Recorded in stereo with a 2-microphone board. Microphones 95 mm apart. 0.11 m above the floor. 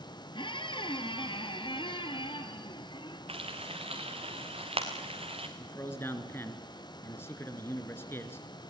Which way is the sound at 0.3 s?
55° left (ahead or behind).